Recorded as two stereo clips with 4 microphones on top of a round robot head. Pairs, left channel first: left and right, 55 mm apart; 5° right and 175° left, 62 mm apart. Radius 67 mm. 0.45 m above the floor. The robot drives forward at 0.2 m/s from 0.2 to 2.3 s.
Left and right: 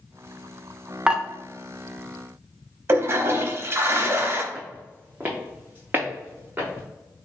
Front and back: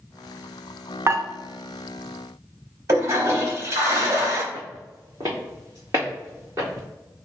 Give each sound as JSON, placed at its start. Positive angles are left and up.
{"t": 1.1, "sound": "dishes clattering", "azimuth_deg": -160, "distance_m": 0.7}
{"t": 2.9, "sound": "a toilet flushing", "azimuth_deg": -135, "distance_m": 0.8}
{"t": 4.5, "sound": "footsteps", "azimuth_deg": -155, "distance_m": 1.2}